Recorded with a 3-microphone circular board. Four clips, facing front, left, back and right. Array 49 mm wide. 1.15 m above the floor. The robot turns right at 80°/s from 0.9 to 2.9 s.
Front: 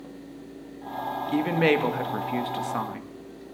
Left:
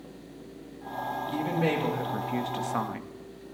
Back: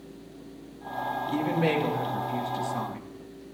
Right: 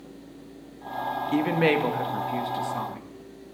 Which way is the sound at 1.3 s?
65° right.